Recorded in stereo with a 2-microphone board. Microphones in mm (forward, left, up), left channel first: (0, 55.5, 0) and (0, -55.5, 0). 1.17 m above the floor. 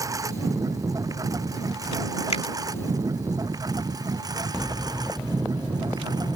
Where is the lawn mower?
30° right (ahead or behind); by 6.4 s 35° right (ahead or behind).